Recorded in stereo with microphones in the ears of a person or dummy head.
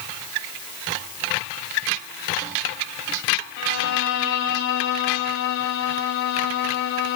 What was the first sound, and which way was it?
A violin, 65° left (ahead or behind).